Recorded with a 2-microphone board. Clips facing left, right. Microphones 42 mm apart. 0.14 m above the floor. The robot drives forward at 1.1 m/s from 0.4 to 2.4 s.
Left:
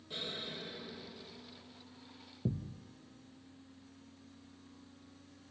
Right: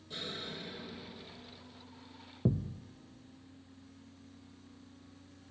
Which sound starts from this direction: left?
An explosion, at 0.1 s.